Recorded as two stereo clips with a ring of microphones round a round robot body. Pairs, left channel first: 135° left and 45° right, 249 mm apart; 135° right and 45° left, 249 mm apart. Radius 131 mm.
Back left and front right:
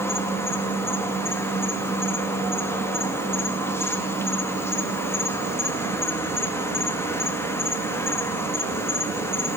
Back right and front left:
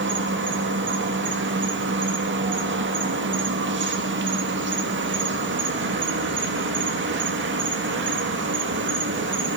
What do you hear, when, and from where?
0.0 s an insect: 60° left, 1.8 m